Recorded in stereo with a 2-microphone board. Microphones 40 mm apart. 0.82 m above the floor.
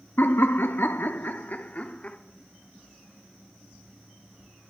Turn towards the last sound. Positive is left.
turn(degrees=30)  # may be behind; listen again after turning